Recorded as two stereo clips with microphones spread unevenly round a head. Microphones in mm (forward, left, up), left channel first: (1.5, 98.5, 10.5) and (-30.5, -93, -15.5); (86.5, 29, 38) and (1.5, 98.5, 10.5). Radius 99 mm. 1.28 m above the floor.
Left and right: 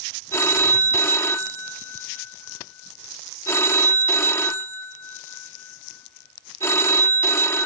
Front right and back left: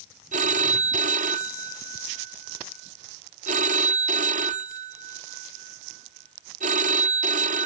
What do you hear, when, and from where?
0.3 s a phone ringing: 155° left